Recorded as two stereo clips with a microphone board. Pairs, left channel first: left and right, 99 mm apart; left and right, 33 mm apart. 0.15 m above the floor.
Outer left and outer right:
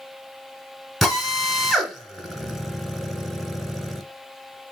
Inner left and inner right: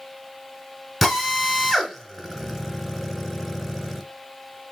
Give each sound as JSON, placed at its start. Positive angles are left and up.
{"t": 1.0, "sound": "a drill", "side_deg": 0, "distance_m": 0.9}